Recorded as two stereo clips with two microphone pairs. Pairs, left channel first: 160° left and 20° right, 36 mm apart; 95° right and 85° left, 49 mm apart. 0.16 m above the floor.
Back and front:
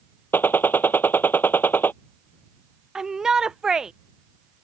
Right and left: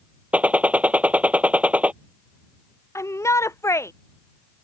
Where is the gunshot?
145° left.